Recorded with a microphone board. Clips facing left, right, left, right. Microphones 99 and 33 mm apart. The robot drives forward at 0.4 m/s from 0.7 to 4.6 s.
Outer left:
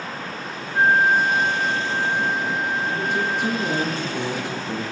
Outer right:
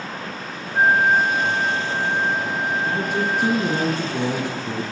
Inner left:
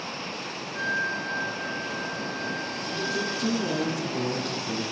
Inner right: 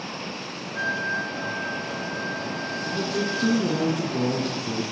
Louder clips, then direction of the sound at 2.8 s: Outer right 1 dB, inner right 3 dB; 45° right (ahead or behind).